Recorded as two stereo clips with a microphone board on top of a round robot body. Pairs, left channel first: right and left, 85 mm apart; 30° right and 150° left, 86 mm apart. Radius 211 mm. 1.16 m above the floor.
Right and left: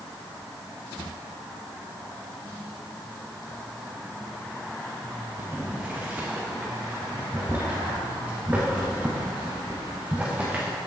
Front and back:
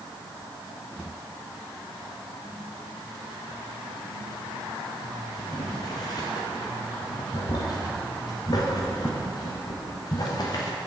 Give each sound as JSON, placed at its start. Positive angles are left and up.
{"t": 5.4, "sound": "boiling", "azimuth_deg": 15, "distance_m": 0.8}